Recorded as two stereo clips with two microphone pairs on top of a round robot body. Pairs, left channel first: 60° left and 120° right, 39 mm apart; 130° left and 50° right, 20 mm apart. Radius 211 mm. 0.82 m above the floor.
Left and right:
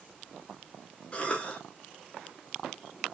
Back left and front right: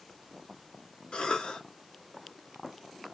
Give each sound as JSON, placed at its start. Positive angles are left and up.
{"t": 1.1, "sound": "a cough", "azimuth_deg": 115, "distance_m": 1.6}